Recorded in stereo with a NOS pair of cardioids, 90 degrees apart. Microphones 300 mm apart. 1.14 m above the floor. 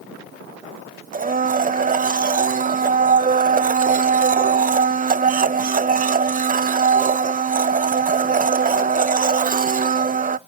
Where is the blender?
25° right, 0.6 m.